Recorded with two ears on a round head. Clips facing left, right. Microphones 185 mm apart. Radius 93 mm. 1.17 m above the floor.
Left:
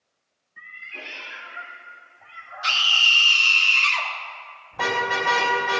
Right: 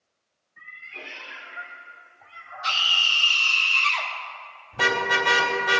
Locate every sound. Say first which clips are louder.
0.6 s a cat meowing: left 1 dB; 50° left (ahead or behind), 3.5 m; by 2.9 s 20° left (ahead or behind), 1.8 m
2.6 s a scream: left 1 dB; 40° left (ahead or behind), 2.5 m
4.7 s a car horn: even; 30° right (ahead or behind), 3 m